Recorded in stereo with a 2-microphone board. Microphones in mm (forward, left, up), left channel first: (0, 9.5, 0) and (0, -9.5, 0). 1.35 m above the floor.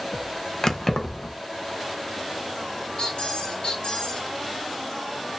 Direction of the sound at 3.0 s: 65° left (ahead or behind).